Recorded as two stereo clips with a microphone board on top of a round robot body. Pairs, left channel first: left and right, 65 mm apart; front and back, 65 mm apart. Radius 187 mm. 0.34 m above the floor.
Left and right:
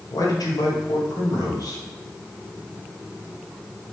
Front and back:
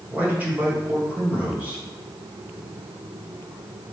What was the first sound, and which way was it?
A man speaking, 115° left.